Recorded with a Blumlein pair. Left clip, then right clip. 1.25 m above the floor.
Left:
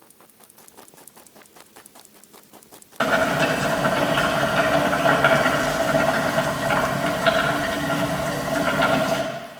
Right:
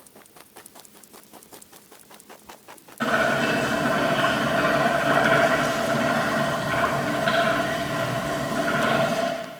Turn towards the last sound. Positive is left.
turn(degrees=55)